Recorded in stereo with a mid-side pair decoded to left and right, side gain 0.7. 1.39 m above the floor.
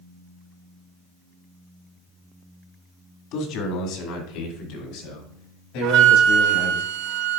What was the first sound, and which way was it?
A man speaking, 60° left.